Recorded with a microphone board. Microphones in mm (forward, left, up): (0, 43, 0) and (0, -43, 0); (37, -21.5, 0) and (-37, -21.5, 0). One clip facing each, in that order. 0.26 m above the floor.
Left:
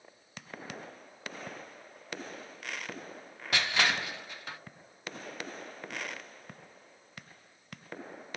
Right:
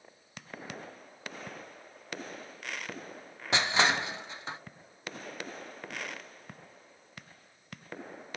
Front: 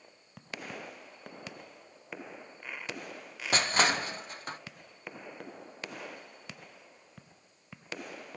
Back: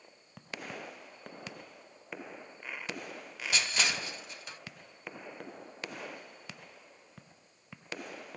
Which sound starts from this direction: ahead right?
Crushing, at 3.5 s.